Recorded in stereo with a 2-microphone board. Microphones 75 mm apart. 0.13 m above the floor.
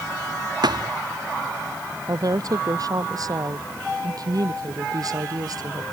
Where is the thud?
70° right (ahead or behind).